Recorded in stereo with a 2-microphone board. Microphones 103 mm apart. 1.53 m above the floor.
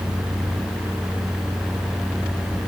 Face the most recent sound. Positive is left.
No sound to turn to.